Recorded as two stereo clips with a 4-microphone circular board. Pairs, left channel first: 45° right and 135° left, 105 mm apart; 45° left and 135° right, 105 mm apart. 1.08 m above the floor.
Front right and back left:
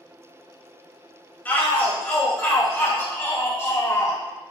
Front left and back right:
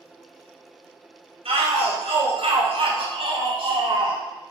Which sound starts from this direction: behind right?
A shout, at 1.4 s.